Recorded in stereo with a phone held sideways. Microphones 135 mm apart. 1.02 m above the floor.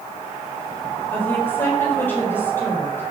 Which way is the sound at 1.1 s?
15° left (ahead or behind).